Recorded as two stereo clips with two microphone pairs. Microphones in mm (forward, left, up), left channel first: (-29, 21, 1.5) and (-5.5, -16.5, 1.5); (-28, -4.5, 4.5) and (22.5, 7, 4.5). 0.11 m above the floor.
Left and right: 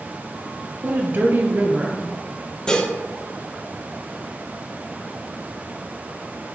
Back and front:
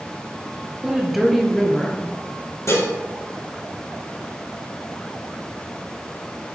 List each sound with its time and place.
0.8 s a woman speaking: 60° right, 1.5 m; by 2.1 s 95° right, 2 m
2.7 s dishes clattering: 165° right, 2.5 m